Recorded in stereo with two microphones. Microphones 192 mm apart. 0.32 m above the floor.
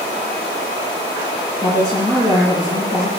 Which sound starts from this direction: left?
A woman speaking, at 1.6 s.